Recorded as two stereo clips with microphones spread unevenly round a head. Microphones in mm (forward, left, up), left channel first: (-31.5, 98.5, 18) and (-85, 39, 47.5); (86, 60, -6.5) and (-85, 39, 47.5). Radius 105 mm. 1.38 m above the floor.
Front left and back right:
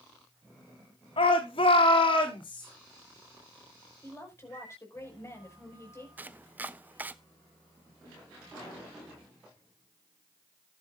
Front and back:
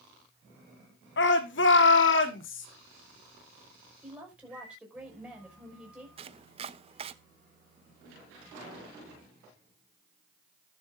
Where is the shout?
20° left, 2.5 m; by 2.7 s 5° left, 3.5 m.